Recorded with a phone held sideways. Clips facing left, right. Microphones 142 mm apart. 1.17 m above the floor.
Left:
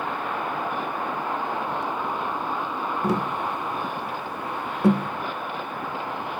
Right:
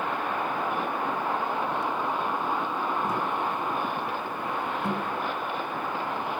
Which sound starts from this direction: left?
Tapping, at 3.0 s.